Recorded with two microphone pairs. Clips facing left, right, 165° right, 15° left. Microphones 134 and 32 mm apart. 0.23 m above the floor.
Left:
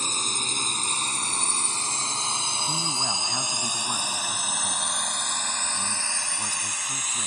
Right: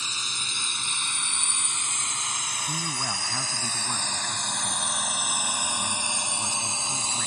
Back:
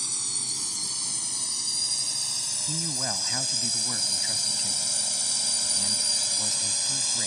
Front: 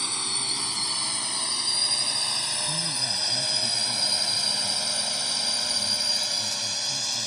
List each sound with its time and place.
0.0 s a drone: 60° left; by 7.3 s 60° right
2.7 s a man speaking: 165° left